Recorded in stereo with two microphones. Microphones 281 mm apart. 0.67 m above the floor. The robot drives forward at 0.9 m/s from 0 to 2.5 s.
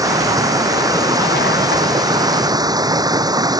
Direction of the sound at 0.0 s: 10° right (ahead or behind).